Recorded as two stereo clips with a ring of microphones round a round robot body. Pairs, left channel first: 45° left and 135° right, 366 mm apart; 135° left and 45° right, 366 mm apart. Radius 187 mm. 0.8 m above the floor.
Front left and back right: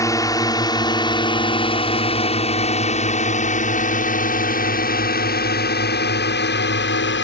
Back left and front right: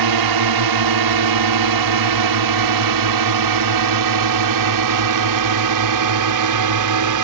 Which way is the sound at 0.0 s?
35° right.